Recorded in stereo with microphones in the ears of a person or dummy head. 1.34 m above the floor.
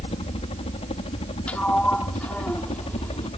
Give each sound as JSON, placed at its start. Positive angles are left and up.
{"t": 0.0, "sound": "a helicopter", "side_deg": 30}
{"t": 1.5, "sound": "a sliding door", "side_deg": 5}